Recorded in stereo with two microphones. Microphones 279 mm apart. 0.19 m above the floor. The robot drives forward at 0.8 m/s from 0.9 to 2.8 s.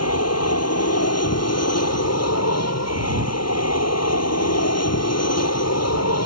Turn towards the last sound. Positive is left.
turn(degrees=65)  # may be behind; listen again after turning